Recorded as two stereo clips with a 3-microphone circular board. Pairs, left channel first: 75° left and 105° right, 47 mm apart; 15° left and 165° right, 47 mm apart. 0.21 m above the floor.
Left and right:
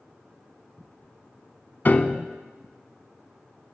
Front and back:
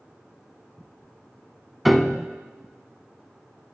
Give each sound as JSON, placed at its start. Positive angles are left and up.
{"t": 1.9, "sound": "a piano", "azimuth_deg": 105, "distance_m": 0.7}